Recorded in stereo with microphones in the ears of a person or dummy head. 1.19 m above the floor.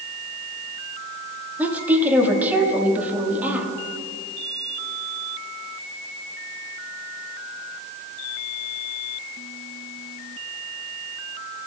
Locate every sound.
1.6 s a woman speaking: centre (ahead or behind), 1.6 m